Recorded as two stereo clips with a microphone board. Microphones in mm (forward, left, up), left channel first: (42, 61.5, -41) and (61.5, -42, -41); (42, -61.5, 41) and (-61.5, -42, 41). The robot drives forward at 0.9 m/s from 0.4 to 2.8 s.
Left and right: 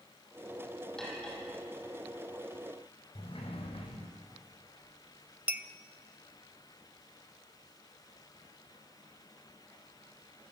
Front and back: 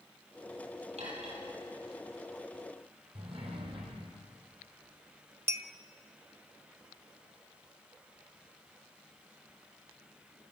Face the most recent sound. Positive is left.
turn(degrees=-140)